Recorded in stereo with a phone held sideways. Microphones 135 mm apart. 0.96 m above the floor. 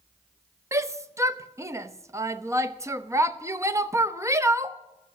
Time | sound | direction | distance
0.7 | a shout | 20° right (ahead or behind) | 0.8 m